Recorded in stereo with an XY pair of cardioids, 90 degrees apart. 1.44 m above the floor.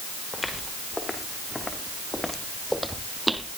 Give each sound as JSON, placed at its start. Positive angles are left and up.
{"t": 0.3, "sound": "footsteps", "azimuth_deg": 25, "distance_m": 5.5}